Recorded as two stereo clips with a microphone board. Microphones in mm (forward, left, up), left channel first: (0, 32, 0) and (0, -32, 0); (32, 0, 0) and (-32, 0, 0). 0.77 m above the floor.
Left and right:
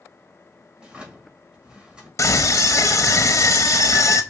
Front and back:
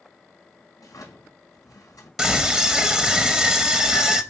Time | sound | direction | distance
0.8 | a drawer | 15° right | 1.7 m
2.2 | a scream | 90° left | 0.6 m